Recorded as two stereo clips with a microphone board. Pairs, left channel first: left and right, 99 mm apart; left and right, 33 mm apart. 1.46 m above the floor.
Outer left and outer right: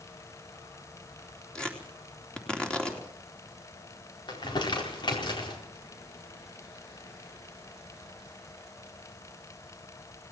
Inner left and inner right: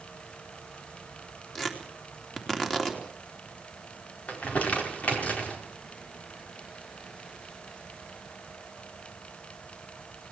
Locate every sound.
1.6 s tearing paper: 10° left (ahead or behind), 3.5 m
4.3 s crumpling: 50° left (ahead or behind), 4.5 m